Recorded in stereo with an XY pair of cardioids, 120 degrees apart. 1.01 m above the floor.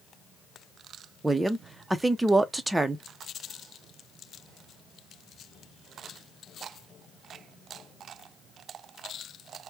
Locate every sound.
1.2 s a woman speaking: 10° right, 0.7 m